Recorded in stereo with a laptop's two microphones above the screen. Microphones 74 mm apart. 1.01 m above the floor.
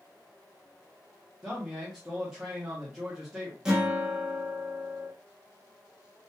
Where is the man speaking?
5° right (ahead or behind), 0.6 m.